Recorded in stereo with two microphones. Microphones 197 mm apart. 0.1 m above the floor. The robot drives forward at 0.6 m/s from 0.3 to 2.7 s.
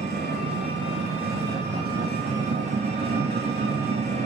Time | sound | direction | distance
0.0 | an engine running | 55° right (ahead or behind) | 6.5 m